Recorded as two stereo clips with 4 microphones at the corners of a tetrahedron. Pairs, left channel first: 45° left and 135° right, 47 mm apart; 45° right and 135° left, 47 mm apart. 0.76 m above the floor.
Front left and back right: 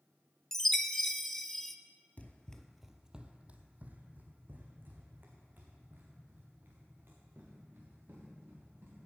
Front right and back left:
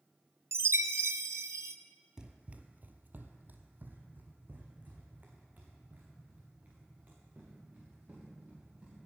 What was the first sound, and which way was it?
A chime, 130° left.